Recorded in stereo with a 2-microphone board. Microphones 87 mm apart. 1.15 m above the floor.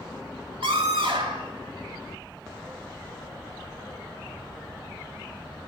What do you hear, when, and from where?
0.6 s a scream: 80° right, 2.5 m